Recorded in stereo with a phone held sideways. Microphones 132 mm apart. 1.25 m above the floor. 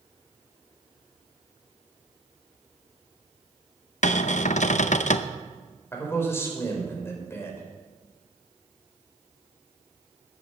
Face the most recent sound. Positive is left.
turn(degrees=20)  # may be behind; listen again after turning